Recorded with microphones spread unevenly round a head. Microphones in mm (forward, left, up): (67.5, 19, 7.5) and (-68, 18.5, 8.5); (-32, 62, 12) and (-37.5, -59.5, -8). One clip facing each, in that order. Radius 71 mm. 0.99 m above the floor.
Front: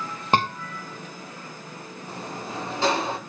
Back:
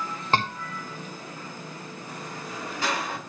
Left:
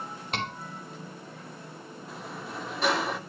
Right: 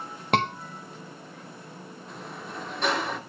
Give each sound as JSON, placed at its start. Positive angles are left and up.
{"t": 0.3, "sound": "a scream", "azimuth_deg": -75, "distance_m": 0.7}
{"t": 2.1, "sound": "a sliding door", "azimuth_deg": 20, "distance_m": 0.6}